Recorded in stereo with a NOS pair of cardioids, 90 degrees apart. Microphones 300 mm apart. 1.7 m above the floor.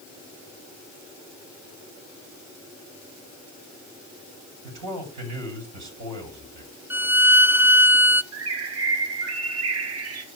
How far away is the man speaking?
About 7 m.